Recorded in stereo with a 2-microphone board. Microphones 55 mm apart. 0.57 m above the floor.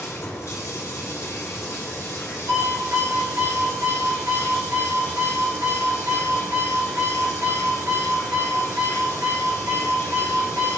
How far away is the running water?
About 2.5 m.